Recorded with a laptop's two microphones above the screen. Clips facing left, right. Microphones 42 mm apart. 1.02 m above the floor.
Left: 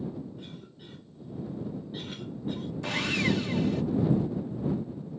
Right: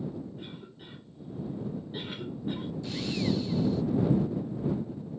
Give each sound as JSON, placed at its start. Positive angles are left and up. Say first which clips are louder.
{"t": 0.4, "sound": "a cough", "louder": "right 1 dB", "side_deg": -20}
{"t": 2.8, "sound": "sawing", "louder": "left 4 dB", "side_deg": 75}